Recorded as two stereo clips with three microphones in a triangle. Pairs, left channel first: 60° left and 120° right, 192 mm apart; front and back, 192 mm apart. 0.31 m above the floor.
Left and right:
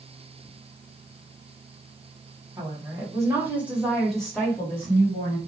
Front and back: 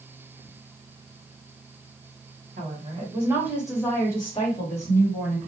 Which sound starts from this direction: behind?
A woman speaking, at 2.6 s.